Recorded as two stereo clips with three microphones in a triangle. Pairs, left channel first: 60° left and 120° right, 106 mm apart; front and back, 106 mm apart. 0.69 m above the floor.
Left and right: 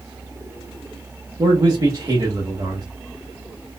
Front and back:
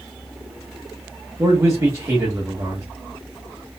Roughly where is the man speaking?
Behind right.